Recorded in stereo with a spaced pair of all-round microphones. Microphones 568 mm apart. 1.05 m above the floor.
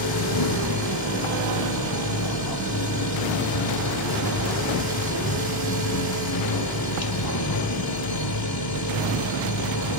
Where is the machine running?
40° left (ahead or behind), 1.6 m.